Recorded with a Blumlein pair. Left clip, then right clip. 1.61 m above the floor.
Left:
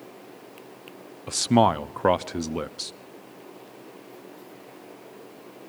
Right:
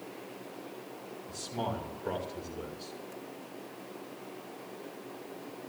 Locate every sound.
1.3 s a man speaking: 45° left, 0.5 m